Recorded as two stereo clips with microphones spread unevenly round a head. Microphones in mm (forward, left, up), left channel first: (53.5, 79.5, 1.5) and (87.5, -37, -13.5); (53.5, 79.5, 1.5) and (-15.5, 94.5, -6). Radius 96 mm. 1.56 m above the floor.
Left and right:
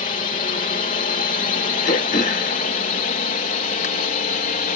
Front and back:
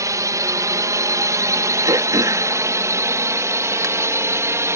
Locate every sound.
0.0 s a drone: 140° left; by 4.8 s 125° left
1.9 s throat clearing: 130° left